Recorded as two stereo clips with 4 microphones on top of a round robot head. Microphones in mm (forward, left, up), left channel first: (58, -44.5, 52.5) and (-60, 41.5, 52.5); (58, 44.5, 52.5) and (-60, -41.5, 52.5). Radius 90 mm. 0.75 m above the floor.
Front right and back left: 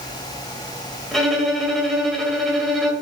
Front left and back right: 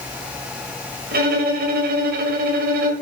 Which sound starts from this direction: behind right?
A violin, at 1.1 s.